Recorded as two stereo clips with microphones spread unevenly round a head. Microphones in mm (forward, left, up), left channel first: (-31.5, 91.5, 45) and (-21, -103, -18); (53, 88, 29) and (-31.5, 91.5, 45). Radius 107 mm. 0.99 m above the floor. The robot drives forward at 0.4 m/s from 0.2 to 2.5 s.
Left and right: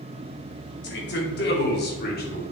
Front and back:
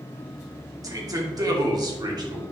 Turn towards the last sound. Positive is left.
turn(degrees=140)